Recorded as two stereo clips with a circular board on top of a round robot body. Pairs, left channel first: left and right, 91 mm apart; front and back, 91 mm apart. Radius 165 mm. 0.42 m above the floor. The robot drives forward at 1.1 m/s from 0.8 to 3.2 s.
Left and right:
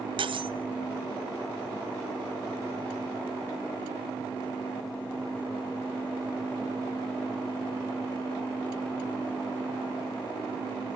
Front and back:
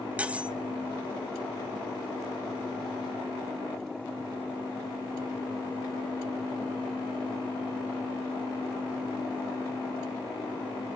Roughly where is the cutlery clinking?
Right.